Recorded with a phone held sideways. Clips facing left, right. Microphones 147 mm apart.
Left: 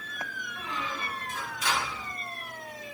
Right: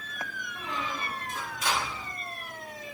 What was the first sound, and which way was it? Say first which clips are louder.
A squeak: right 1 dB; 40° right (ahead or behind).